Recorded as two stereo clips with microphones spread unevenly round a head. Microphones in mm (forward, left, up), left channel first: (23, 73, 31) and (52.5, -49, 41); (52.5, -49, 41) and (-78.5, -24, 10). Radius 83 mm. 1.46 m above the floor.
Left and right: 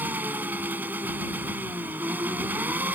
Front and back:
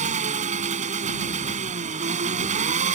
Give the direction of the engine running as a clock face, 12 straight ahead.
5 o'clock.